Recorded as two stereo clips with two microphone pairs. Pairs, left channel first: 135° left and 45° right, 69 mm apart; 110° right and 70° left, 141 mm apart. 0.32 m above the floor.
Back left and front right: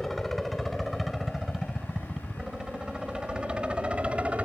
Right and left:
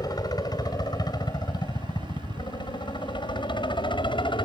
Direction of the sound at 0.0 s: 140° right.